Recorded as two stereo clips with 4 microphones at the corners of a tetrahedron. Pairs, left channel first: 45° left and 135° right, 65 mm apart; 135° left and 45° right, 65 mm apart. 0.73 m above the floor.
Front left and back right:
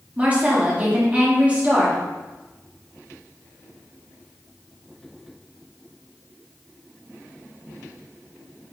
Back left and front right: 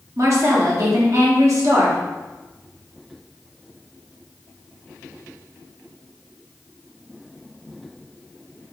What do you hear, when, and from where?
0.2 s a woman speaking: 70° right, 1.1 m